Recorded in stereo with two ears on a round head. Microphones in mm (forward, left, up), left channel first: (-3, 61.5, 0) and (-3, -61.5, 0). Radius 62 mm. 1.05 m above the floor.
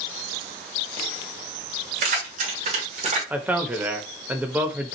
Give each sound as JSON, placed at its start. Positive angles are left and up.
{"t": 2.0, "sound": "keys jangling", "side_deg": -60, "distance_m": 2.5}
{"t": 3.3, "sound": "a man speaking", "side_deg": -10, "distance_m": 0.9}